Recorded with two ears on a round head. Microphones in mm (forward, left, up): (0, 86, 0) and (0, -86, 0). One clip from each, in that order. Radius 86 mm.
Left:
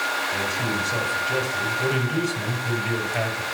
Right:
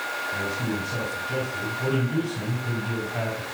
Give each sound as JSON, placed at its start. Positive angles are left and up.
{"t": 0.3, "sound": "a man speaking", "side_deg": 60, "distance_m": 3.0}